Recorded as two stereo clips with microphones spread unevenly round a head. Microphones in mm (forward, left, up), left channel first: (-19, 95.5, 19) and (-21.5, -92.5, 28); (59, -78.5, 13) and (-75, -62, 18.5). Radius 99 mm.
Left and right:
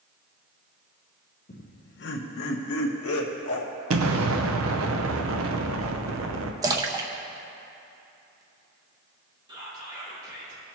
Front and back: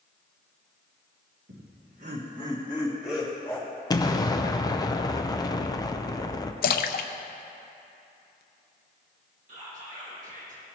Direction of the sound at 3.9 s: 70° right.